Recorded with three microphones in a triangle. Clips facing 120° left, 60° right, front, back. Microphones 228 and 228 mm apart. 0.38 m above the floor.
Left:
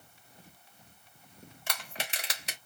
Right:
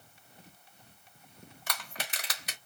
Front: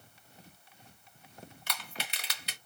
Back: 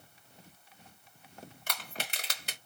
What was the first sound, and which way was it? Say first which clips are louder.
Crushing: left 1 dB, back 2 dB; 170° left.